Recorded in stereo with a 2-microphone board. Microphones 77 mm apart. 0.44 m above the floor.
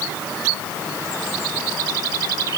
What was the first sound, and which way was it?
Only background noise.